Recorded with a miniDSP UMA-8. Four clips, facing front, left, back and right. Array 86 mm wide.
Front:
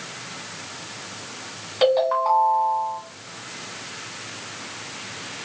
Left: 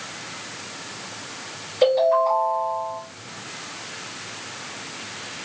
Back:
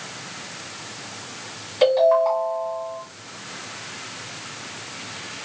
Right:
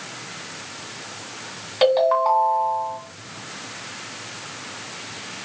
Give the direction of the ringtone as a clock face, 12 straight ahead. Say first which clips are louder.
Even, back 3 dB; 3 o'clock.